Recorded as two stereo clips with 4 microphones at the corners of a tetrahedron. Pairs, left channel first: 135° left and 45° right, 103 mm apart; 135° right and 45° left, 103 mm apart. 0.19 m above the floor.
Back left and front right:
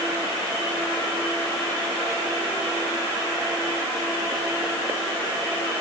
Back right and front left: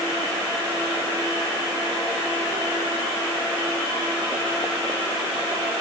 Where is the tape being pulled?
I don't hear tape being pulled.